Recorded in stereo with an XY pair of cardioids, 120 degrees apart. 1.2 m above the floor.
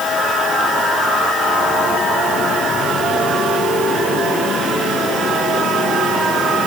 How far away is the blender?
No blender in this recording.